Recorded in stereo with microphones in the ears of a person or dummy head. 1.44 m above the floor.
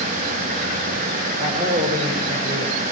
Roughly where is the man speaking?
Right.